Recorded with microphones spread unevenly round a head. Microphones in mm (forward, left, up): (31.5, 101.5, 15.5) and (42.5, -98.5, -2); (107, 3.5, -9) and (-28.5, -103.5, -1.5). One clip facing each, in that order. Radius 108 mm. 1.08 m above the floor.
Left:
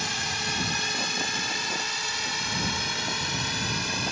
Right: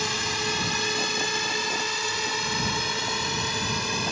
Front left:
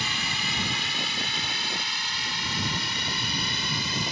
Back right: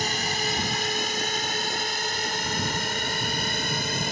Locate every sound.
0.0 s a drone: 95° right; by 4.1 s 100° right